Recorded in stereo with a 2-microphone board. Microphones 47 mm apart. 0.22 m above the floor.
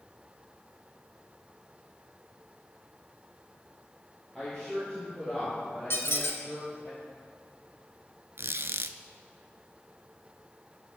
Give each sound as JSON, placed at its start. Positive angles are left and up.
{"t": 4.3, "sound": "a woman speaking", "side_deg": 15, "distance_m": 5.0}
{"t": 5.9, "sound": "a squeak", "side_deg": 65, "distance_m": 1.2}
{"t": 8.4, "sound": "a squeak", "side_deg": -70, "distance_m": 0.5}